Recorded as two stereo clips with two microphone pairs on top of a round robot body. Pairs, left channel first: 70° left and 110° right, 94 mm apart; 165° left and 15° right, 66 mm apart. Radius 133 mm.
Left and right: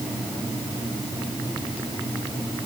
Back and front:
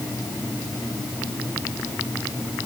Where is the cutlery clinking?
No cutlery clinking in this recording.